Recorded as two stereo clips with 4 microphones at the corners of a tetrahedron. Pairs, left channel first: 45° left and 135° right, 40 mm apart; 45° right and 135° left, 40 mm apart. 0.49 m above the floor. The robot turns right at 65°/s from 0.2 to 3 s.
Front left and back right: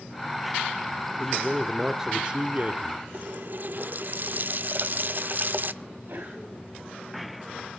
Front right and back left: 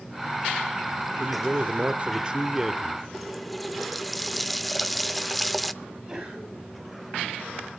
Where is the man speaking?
110° left, 0.9 m; by 3.0 s 135° right, 0.9 m.